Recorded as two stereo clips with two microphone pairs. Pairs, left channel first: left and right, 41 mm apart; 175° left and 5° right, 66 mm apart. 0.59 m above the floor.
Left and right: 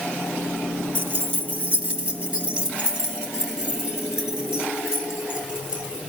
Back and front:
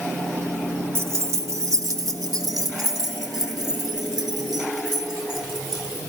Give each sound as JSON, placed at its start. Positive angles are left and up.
{"t": 0.9, "sound": "keys jangling", "azimuth_deg": -55, "distance_m": 1.5}